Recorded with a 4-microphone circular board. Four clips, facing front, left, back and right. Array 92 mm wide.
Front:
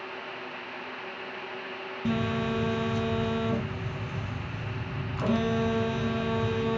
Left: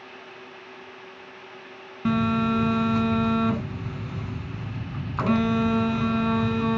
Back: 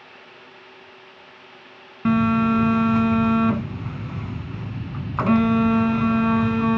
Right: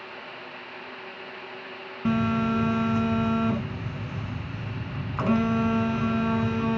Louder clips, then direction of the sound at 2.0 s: Left 1 dB, back 10 dB; 175° left.